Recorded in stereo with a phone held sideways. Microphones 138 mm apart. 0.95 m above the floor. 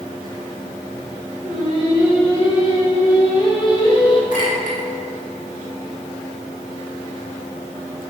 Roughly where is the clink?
Left.